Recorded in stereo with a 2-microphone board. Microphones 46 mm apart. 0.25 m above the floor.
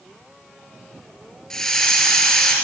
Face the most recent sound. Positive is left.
turn(degrees=10)  # may be behind; listen again after turning